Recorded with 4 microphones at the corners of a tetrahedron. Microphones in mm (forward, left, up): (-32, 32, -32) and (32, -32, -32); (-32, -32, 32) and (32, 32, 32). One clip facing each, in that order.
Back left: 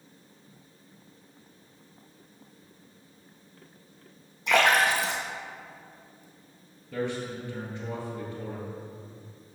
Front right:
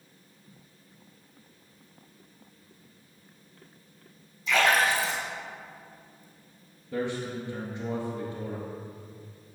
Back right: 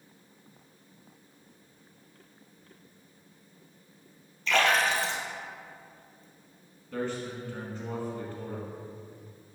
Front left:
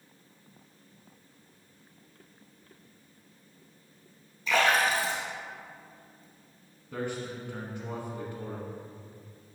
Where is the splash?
125° left, 1.3 m.